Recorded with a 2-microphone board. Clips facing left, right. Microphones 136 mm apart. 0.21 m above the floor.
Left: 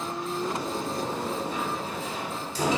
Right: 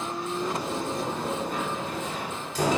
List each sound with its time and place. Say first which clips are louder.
0.4 s a sliding door: right 1 dB; 60° right (ahead or behind), 1.3 m